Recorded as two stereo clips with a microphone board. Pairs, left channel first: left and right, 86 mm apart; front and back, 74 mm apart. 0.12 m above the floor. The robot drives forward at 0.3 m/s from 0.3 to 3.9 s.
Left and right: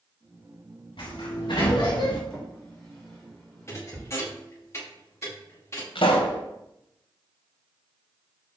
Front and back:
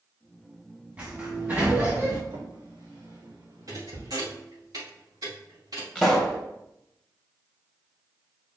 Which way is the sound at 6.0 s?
95° left.